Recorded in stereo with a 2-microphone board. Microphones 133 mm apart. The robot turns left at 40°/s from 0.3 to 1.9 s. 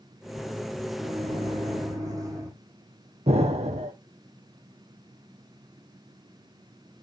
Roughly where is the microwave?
Behind right.